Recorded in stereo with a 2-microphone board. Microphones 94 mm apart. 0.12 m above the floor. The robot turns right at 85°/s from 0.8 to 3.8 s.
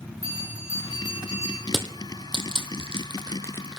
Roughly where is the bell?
Ahead left.